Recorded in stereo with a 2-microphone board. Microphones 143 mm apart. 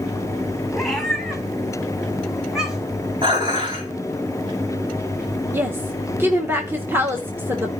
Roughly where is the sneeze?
I don't hear a sneeze.